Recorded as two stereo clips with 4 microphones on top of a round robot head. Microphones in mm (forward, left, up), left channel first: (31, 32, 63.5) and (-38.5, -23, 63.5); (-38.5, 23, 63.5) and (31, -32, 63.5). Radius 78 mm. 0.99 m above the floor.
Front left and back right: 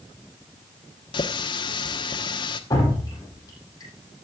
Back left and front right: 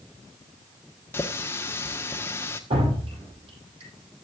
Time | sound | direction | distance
1.1 | a running tap | 75° left | 1.3 m
2.7 | dripping | 15° right | 8.5 m